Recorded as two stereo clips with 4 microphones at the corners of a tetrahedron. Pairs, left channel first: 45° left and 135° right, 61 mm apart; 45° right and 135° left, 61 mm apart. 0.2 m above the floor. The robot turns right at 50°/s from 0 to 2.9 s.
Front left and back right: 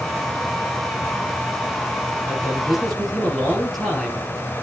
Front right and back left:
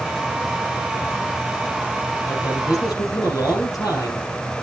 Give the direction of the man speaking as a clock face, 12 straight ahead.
3 o'clock.